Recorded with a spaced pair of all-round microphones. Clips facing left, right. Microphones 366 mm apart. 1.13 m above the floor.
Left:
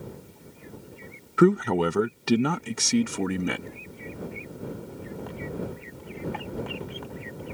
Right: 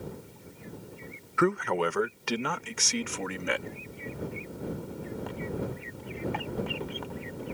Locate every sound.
1.4 s a man speaking: 50° left (ahead or behind)